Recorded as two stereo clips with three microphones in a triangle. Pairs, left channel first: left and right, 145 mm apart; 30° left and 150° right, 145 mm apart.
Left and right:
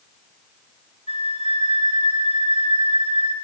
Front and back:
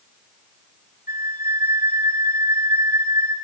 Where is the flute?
45° left, 1.9 m.